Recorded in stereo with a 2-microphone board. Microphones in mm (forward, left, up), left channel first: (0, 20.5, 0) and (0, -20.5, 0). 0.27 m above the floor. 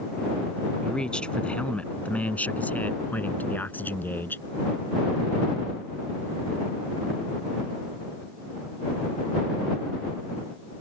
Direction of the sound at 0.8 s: 20° left (ahead or behind).